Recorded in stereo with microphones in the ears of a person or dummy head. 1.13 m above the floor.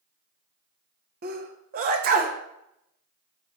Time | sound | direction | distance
1.2 | a sneeze | 45° right (ahead or behind) | 1.1 m